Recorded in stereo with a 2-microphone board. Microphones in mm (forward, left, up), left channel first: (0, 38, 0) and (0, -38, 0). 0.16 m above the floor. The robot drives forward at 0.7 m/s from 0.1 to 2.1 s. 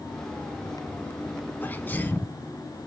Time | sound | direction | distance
1.6 | a sneeze | 25° left (ahead or behind) | 1.2 m